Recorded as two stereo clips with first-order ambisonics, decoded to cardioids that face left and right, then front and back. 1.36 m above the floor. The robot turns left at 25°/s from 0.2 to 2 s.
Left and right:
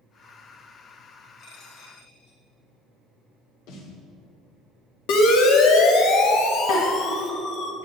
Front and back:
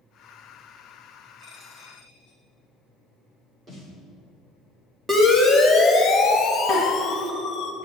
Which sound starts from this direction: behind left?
A dropped coin, at 1.4 s.